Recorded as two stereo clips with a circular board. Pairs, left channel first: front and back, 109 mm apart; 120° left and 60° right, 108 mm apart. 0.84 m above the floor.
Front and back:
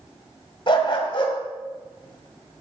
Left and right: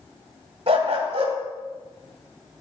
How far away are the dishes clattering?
I don't hear dishes clattering.